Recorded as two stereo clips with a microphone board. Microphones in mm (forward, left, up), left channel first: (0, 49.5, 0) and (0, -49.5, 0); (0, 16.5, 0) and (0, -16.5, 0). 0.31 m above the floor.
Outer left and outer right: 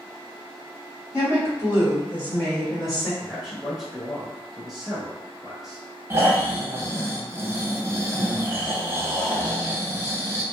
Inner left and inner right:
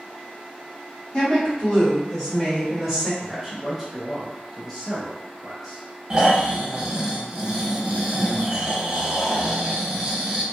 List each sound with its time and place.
1.1 s a woman speaking: 35° left (ahead or behind), 1.7 m; by 3.1 s centre (ahead or behind), 1.5 m
3.2 s a man speaking: 5° right (ahead or behind), 1.0 m
6.1 s snoring: 25° right (ahead or behind), 0.5 m